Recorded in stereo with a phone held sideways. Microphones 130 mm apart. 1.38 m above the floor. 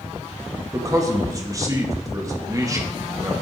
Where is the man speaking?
25° right (ahead or behind), 1.2 m.